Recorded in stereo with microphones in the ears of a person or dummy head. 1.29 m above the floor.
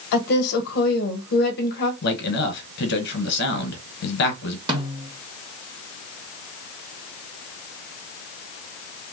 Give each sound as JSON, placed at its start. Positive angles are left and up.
{"t": 0.1, "sound": "a woman speaking", "side_deg": 60, "distance_m": 1.0}
{"t": 2.0, "sound": "a man speaking", "side_deg": 65, "distance_m": 1.2}
{"t": 4.7, "sound": "a snare drum", "side_deg": -20, "distance_m": 1.6}